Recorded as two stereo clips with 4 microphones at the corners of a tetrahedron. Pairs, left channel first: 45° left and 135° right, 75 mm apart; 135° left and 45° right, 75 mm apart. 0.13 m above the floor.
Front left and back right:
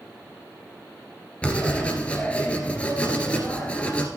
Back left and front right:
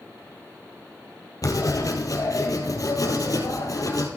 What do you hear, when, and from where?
1.4 s writing: 115° left, 2 m